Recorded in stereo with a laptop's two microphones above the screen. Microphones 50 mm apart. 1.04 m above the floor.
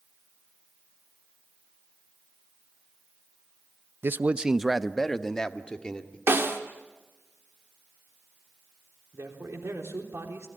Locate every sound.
4.0 s a man speaking: 55° right (ahead or behind), 0.6 m; by 6.2 s 20° left (ahead or behind), 2.5 m
6.3 s a snare drum: 55° right (ahead or behind), 1.8 m
9.1 s a man speaking: 70° right (ahead or behind), 3.5 m